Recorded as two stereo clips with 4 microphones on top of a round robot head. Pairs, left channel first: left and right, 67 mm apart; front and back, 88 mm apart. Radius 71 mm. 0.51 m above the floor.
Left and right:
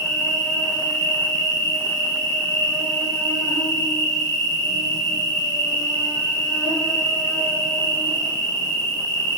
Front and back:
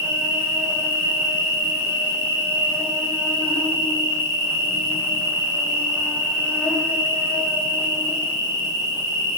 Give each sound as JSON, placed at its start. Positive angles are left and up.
{"t": 0.0, "sound": "an insect", "azimuth_deg": 115, "distance_m": 1.9}